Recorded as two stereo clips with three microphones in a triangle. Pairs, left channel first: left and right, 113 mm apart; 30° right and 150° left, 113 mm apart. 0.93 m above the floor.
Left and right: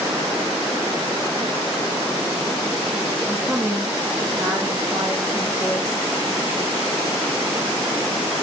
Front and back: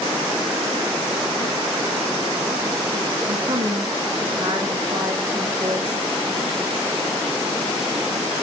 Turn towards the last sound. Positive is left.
turn(degrees=-140)